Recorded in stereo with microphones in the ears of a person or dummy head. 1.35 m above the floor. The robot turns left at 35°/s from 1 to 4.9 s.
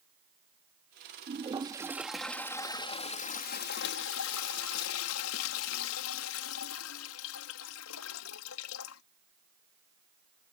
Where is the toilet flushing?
150° right; by 9.0 s 80° left.